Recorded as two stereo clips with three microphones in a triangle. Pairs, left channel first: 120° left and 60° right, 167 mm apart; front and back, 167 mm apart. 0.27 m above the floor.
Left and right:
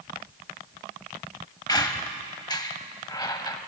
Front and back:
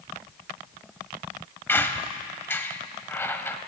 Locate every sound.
1.7 s a squeak: 70° left, 0.7 m